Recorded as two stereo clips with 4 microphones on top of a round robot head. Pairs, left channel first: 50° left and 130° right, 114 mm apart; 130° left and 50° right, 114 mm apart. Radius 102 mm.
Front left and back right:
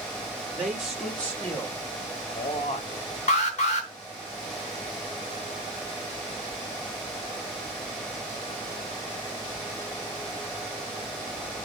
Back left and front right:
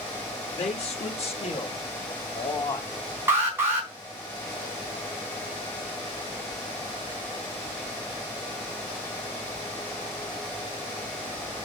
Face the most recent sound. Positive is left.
turn(degrees=20)